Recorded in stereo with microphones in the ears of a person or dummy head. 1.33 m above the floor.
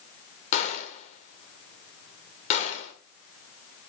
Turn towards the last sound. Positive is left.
turn(degrees=40)  # may be behind; listen again after turning